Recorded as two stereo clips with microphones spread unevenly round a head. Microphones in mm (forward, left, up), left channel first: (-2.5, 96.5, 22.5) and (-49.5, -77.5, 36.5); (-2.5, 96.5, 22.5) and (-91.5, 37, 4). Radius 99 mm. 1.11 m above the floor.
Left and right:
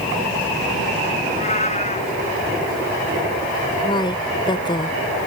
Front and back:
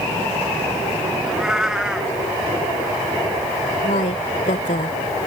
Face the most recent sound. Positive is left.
turn(degrees=5)